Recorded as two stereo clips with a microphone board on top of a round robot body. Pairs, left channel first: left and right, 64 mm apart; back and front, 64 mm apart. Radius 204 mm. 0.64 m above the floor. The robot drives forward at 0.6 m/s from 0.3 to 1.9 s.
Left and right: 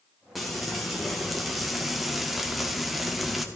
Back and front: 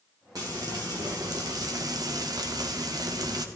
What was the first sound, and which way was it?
Frying, straight ahead.